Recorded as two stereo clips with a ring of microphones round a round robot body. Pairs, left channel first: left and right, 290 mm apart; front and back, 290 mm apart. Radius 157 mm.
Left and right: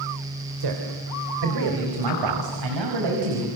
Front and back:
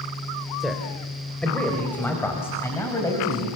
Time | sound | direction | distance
0.6 | a man speaking | 90° right | 3.5 m